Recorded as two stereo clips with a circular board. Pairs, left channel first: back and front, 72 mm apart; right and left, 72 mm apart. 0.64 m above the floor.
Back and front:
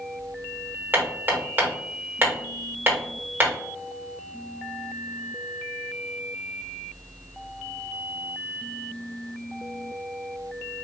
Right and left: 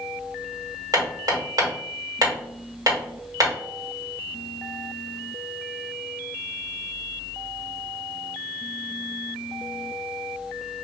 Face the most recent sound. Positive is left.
turn(degrees=60)